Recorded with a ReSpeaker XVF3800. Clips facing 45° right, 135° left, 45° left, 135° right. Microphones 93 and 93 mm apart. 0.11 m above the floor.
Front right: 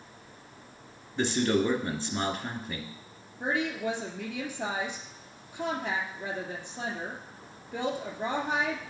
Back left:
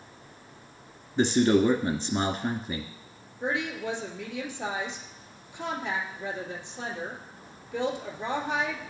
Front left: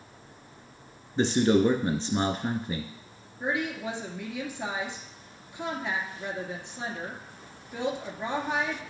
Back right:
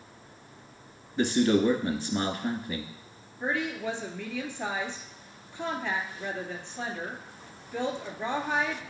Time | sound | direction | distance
1.2 | a man speaking | 80° left | 1.3 m
3.4 | a woman speaking | 30° right | 1.9 m